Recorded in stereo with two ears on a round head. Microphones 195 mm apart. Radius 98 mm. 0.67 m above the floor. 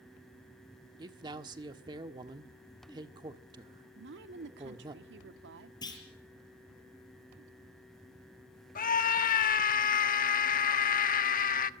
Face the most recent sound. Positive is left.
turn(degrees=40)  # may be behind; listen again after turning